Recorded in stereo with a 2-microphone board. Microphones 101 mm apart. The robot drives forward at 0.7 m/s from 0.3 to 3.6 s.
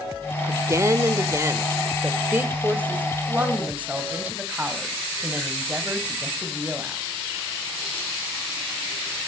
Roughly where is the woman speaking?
Right.